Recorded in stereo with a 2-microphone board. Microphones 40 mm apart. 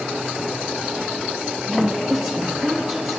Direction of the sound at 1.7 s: 5° right (ahead or behind).